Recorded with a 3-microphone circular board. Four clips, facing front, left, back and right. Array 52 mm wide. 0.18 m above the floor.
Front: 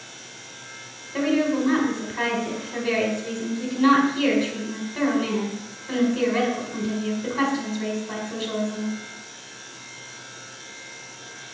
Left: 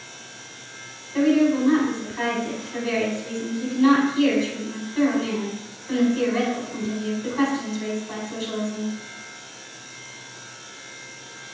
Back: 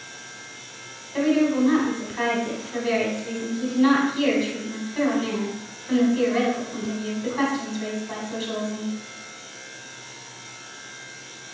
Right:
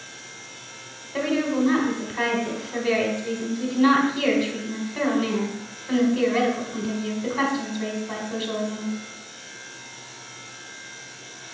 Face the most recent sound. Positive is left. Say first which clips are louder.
# left 5 dB, back 2 dB
turn(degrees=-80)